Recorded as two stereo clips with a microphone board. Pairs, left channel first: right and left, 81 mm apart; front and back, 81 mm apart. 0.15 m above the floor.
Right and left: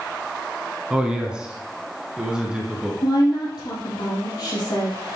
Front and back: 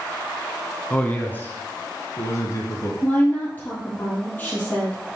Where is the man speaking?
35° left, 1.3 m; by 2.9 s 10° left, 1.9 m.